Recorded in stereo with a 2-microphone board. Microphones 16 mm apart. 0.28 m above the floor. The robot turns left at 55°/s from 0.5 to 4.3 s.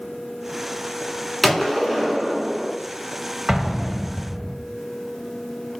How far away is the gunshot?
About 1.1 m.